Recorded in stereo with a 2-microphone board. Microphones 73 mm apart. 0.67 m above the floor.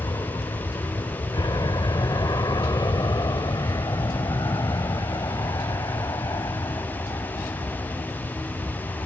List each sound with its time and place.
0.0 s an aircraft: 60° left (ahead or behind); by 9.1 s 50° left (ahead or behind)